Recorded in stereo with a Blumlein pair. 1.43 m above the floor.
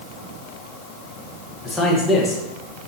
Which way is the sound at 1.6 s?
5° left.